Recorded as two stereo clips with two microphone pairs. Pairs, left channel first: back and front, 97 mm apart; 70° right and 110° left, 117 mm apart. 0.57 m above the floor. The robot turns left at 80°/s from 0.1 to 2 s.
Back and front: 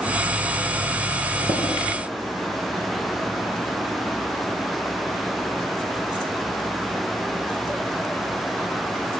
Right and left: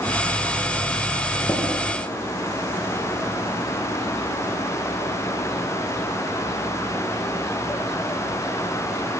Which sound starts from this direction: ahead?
Tapping, at 1.5 s.